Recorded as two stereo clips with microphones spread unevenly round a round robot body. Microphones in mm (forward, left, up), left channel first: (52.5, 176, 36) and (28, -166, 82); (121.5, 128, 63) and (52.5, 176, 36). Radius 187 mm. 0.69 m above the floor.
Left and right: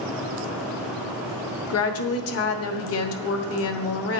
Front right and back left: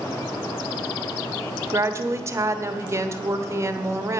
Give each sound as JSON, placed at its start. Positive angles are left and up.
{"t": 1.7, "sound": "a woman speaking", "azimuth_deg": 115, "distance_m": 1.3}